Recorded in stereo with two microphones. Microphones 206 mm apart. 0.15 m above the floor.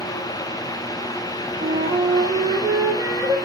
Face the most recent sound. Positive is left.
turn(degrees=-20)  # may be behind; listen again after turning